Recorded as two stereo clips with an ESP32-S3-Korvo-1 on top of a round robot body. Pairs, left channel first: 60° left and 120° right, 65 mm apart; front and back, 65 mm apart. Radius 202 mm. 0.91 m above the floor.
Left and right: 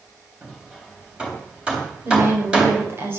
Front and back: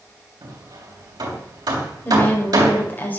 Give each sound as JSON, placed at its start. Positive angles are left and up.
{"t": 0.4, "sound": "hammering", "azimuth_deg": 165, "distance_m": 3.0}
{"t": 2.0, "sound": "a woman speaking", "azimuth_deg": -65, "distance_m": 5.5}